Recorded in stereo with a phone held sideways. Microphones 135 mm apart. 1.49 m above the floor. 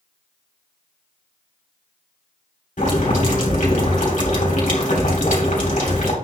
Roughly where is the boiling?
Left.